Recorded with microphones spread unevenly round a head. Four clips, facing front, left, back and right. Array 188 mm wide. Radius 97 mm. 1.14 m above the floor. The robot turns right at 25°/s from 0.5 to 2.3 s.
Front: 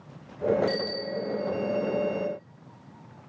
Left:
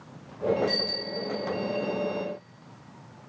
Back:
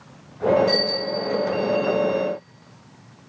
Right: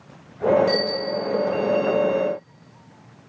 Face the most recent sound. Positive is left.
turn(degrees=-10)